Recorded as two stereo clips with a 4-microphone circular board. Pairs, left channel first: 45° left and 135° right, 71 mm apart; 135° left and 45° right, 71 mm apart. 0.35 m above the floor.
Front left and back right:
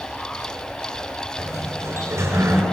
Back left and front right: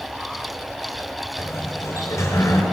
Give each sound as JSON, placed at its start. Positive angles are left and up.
{"t": 1.4, "sound": "a sliding door", "azimuth_deg": 180, "distance_m": 5.0}